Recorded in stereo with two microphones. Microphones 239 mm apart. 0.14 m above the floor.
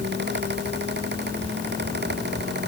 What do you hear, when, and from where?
Only background noise.